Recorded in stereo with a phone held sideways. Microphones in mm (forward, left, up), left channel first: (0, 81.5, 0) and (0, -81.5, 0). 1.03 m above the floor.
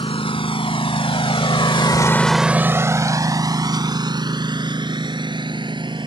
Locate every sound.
0.0 s a lawn mower: 35° left (ahead or behind); by 6.1 s 30° right (ahead or behind)